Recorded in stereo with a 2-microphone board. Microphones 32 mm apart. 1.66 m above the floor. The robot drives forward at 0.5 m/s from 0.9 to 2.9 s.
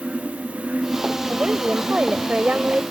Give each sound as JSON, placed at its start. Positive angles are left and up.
{"t": 1.3, "sound": "a woman speaking", "side_deg": -45}